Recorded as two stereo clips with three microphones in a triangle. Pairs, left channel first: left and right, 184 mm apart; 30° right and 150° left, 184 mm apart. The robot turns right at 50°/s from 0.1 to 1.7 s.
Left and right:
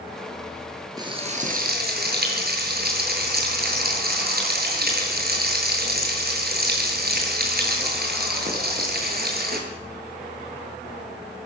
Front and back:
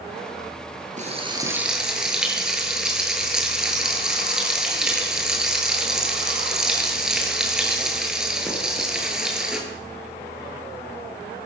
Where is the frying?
160° right, 7.5 m; by 9.6 s 125° right, 7.5 m.